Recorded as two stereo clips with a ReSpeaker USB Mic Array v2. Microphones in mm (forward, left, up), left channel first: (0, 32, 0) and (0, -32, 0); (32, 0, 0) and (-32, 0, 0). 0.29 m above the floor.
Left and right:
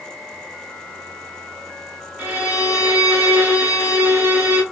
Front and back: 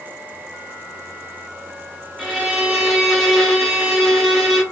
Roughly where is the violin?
Right.